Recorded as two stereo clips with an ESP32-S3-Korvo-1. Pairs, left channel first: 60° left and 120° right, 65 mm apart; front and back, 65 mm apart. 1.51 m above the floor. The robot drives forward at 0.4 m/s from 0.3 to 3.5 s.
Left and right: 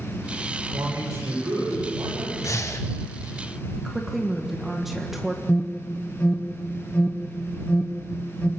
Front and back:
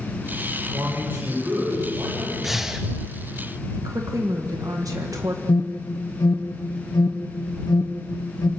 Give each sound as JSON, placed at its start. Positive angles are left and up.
{"t": 0.7, "sound": "a man speaking", "azimuth_deg": -120, "distance_m": 7.0}
{"t": 2.4, "sound": "breathing", "azimuth_deg": 95, "distance_m": 1.3}
{"t": 3.8, "sound": "a woman speaking", "azimuth_deg": 155, "distance_m": 1.7}
{"t": 5.5, "sound": "an alarm", "azimuth_deg": -10, "distance_m": 1.2}